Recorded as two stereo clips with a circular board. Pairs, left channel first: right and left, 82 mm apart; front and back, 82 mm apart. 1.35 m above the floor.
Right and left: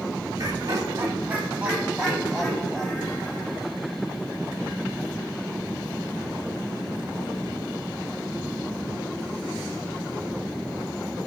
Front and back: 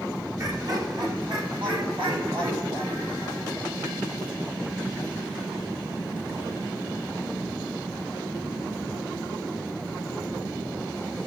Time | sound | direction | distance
0.4 | laughter | 135° left | 2 m